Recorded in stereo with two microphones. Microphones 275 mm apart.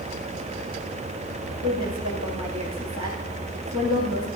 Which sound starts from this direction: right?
A woman speaking, at 1.6 s.